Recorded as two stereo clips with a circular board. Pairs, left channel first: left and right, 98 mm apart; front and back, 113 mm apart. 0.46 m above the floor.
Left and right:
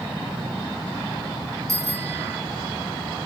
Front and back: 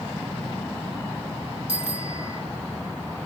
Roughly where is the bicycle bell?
Behind right.